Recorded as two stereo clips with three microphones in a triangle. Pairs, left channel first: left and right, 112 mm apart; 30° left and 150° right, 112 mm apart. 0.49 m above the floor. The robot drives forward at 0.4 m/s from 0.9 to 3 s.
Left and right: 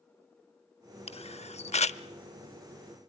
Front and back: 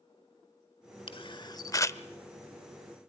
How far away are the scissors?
No scissors in this recording.